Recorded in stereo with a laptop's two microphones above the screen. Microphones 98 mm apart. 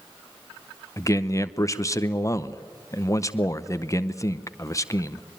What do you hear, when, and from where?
1.0 s a man speaking: 30° left (ahead or behind), 0.7 m